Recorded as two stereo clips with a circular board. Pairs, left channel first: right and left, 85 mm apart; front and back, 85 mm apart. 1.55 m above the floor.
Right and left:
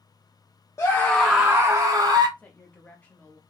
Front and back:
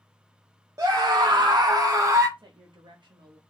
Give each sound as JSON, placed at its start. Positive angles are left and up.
{"t": 0.8, "sound": "a scream", "azimuth_deg": -135, "distance_m": 0.6}
{"t": 2.4, "sound": "a woman speaking", "azimuth_deg": -165, "distance_m": 0.7}